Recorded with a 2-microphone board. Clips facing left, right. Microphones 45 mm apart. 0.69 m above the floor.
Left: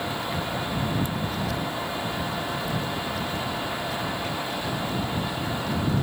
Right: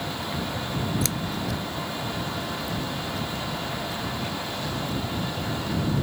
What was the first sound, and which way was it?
Scissors, 85° right.